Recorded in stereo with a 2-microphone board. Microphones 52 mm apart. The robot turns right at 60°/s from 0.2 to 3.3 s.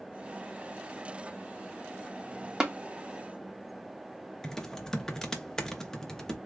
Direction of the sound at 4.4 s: 10° left (ahead or behind).